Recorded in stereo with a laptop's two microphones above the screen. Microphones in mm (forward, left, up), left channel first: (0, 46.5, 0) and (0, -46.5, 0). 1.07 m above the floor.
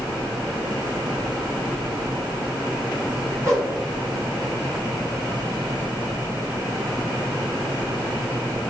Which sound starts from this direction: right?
A whoosh, at 3.4 s.